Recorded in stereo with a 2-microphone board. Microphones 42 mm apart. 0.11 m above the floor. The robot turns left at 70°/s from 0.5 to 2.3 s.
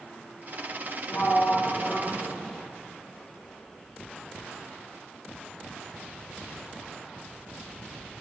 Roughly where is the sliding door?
Left.